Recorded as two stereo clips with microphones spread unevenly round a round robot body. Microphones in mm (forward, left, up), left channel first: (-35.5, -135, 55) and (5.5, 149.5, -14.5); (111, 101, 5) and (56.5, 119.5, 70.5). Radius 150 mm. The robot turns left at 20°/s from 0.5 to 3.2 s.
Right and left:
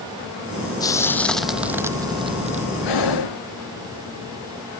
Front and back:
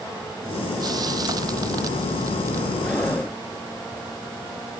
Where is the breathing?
100° right; by 3.4 s 110° right.